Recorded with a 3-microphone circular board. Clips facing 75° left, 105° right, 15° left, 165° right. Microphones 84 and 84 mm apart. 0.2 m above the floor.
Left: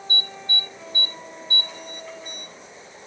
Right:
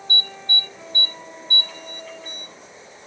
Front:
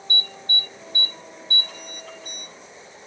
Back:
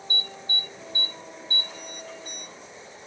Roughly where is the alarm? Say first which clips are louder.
Right 2 dB, front 4 dB; ahead.